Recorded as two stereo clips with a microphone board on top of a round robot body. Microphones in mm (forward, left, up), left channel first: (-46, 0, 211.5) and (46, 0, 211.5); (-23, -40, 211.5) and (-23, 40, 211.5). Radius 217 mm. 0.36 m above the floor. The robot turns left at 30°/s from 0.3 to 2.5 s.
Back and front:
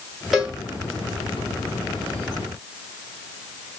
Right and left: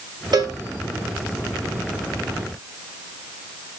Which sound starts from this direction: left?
A cowbell, at 0.3 s.